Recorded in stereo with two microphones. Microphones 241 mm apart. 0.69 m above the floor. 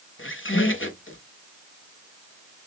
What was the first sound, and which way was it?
A squeak, 55° left (ahead or behind).